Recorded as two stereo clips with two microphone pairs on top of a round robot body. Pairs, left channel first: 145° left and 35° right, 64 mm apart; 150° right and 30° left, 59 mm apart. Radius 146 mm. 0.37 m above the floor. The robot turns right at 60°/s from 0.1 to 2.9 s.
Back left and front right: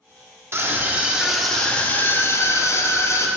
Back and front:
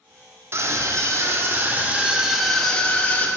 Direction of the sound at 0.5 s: 5° left.